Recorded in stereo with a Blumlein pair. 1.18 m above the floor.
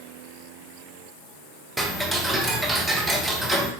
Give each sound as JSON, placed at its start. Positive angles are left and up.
{"t": 1.8, "sound": "ticking", "azimuth_deg": -10, "distance_m": 0.9}